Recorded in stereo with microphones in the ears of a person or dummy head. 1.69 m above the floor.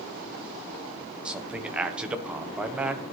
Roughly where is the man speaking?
Centre.